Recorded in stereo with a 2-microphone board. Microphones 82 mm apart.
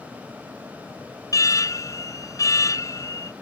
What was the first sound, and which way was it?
An alarm, 45° left (ahead or behind).